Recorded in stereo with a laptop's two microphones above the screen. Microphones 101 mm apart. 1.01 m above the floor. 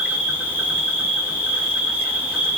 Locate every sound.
0.0 s an insect: 15° right (ahead or behind), 3 m